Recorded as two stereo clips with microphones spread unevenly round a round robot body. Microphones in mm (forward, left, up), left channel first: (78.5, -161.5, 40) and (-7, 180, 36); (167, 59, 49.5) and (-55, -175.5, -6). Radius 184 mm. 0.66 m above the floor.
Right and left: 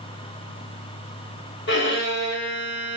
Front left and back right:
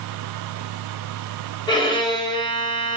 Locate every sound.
1.7 s a violin: 35° right, 1.1 m